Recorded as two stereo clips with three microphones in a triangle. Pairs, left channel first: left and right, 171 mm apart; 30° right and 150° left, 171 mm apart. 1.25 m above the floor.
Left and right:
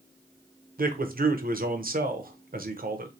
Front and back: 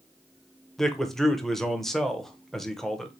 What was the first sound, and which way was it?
A man speaking, 120° right.